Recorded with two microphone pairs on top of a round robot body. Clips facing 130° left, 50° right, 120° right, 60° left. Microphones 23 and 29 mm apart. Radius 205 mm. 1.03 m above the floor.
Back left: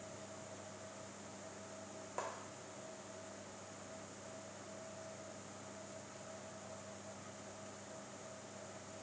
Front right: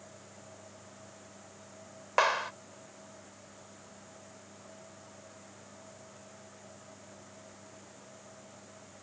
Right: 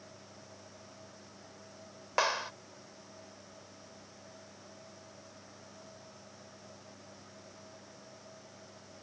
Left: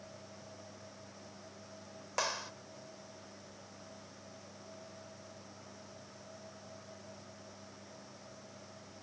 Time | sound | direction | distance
2.2 | a clap | 50° right | ?